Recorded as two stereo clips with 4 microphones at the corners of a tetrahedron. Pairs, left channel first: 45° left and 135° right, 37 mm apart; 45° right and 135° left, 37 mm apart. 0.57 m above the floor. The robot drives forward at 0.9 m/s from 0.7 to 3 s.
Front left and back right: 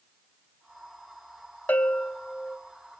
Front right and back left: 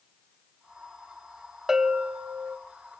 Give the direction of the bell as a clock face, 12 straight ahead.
10 o'clock.